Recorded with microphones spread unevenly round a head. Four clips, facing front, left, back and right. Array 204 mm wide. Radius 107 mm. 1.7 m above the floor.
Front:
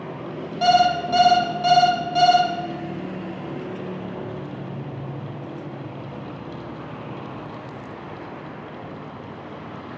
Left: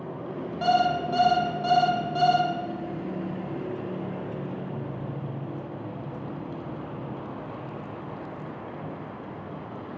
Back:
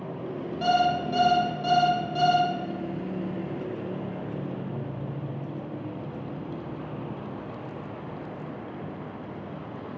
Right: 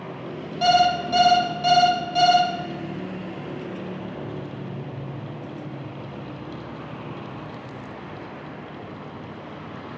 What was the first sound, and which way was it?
An alarm clock, 30° right.